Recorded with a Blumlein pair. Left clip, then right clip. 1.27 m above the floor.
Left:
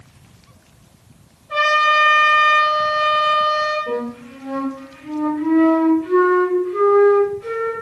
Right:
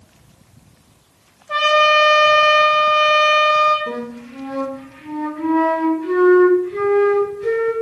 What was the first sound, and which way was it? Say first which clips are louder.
A trumpet: right 2 dB; 60° right.